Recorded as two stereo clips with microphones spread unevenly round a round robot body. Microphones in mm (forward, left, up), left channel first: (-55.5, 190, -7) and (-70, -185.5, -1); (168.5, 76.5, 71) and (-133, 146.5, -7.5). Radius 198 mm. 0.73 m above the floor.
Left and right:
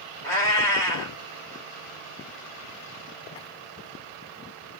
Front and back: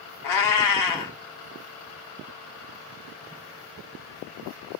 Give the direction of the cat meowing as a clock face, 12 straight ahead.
12 o'clock.